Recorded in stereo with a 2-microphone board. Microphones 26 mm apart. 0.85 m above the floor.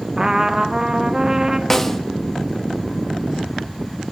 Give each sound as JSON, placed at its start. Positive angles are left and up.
{"t": 0.2, "sound": "a trumpet", "side_deg": -25, "distance_m": 1.1}
{"t": 1.7, "sound": "a snare drum", "side_deg": 10, "distance_m": 1.1}